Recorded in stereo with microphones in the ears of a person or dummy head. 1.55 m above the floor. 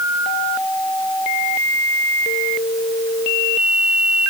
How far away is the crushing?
No crushing in this recording.